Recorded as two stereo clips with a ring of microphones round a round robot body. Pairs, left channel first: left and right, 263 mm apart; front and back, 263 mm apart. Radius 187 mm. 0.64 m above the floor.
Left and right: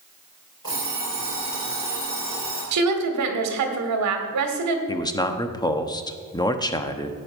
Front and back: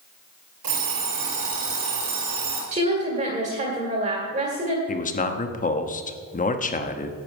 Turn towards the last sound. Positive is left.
turn(degrees=25)